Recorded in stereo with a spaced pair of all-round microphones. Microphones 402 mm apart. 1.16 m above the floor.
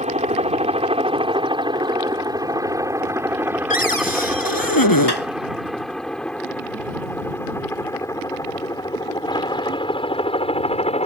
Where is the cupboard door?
55° left (ahead or behind).